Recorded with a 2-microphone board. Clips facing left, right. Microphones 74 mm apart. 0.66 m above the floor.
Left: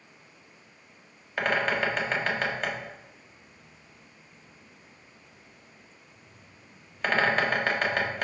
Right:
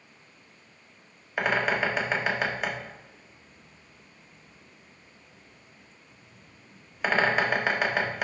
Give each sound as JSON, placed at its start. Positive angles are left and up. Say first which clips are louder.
{"t": 1.4, "sound": "a bird", "louder": "right 1 dB", "side_deg": -10, "distance_m": 1.2}